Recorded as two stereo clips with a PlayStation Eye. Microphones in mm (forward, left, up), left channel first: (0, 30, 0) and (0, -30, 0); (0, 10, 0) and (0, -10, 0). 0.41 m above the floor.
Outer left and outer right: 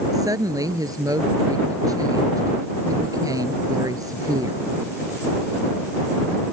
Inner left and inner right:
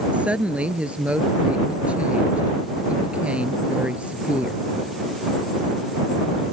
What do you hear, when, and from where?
0.1 s a woman speaking: 80° right